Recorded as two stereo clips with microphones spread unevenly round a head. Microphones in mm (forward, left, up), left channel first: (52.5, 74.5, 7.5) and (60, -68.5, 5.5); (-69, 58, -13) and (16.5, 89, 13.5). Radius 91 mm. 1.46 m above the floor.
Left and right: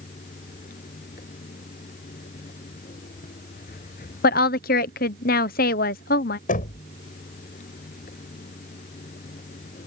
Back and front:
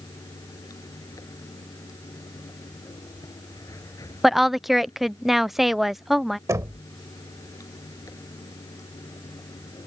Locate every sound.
0.0 s running water: 145° left
4.2 s a woman speaking: 115° left
6.5 s knocking: 70° left